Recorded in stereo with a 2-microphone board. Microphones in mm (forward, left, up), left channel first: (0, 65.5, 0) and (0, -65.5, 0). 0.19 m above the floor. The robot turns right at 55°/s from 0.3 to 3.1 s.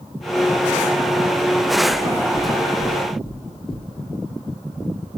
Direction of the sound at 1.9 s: 25° right (ahead or behind).